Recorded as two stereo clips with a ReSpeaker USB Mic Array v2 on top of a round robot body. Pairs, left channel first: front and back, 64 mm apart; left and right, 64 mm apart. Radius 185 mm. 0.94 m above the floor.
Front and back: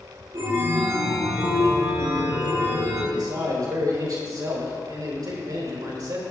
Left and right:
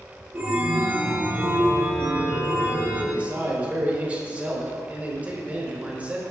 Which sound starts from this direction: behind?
A man speaking, at 3.1 s.